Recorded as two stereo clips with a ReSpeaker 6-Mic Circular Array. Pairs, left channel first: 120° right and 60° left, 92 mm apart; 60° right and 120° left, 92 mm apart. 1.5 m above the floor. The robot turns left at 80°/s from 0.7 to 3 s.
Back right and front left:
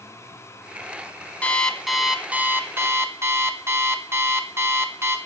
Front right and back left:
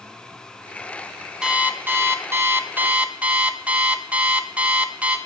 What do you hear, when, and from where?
1.4 s an alarm clock: 170° right, 0.6 m; by 5.2 s 65° left, 0.6 m